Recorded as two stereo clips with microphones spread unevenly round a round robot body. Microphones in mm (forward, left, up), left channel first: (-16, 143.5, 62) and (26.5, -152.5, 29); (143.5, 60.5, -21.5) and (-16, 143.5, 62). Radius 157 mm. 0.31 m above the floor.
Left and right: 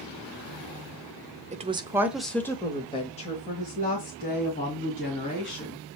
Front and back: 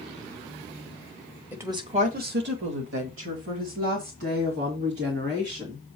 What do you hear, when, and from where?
1.5 s a woman speaking: 85° right, 1.1 m; by 5.8 s 160° left, 4 m